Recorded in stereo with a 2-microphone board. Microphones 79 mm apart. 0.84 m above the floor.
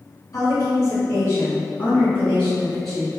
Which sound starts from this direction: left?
A woman speaking, at 0.3 s.